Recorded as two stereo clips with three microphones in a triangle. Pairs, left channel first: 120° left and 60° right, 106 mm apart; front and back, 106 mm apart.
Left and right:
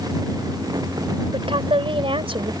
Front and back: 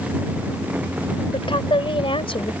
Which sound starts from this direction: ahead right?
A woman speaking, at 1.3 s.